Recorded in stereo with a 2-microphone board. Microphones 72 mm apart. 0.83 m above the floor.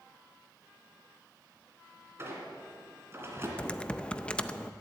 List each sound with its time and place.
2.2 s a squeak: 35° right (ahead or behind), 2.5 m
3.6 s typing on a keyboard: 15° left (ahead or behind), 0.5 m